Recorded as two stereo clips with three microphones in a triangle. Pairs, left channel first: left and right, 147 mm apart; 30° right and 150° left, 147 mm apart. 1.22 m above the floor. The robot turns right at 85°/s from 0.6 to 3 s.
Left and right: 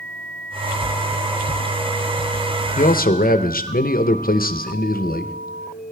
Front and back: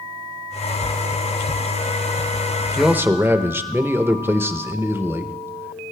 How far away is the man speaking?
About 0.7 m.